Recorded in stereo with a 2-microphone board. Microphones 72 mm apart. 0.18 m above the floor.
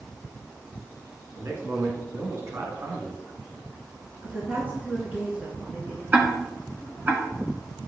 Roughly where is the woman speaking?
Right.